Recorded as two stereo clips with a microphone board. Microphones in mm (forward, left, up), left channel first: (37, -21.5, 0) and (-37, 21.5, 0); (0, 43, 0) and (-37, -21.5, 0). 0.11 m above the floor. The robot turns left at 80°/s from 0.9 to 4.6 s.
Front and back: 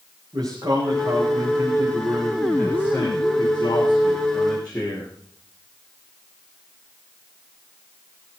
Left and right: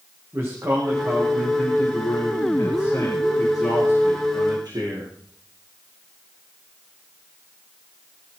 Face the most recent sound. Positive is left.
turn(degrees=-115)